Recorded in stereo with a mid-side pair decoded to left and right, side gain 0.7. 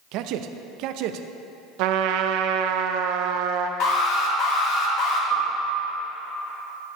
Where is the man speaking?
65° right, 0.5 m.